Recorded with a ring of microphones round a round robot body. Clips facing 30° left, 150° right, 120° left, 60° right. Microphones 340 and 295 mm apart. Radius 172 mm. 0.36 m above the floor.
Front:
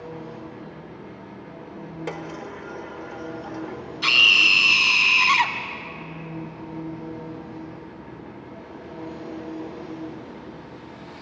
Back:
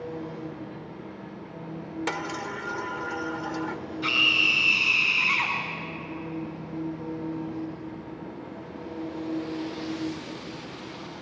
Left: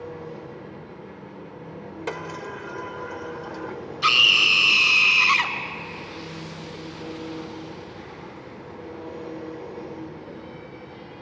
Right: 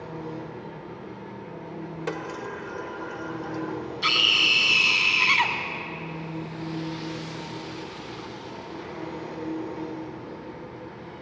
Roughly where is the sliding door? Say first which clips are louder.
Front 1 dB, even; behind right.